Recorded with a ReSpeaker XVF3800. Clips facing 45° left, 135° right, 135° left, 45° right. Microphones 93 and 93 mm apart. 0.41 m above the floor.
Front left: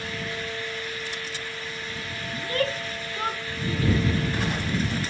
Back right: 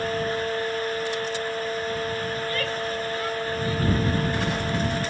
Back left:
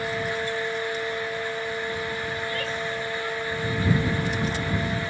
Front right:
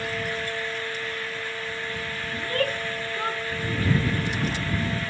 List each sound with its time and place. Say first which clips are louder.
2.3 s a shout: even, front right 2 dB; 10° right; by 5.0 s 5° right